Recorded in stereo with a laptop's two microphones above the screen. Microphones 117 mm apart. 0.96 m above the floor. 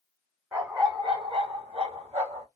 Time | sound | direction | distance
0.5 | a dog barking | 25° right (ahead or behind) | 1.4 m